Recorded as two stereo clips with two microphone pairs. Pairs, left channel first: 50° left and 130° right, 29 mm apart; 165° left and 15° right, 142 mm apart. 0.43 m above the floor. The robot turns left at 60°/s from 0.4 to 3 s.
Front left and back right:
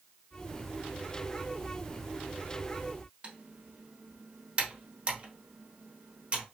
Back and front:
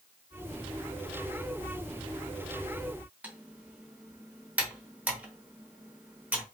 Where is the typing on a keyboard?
90° right, 1.0 m.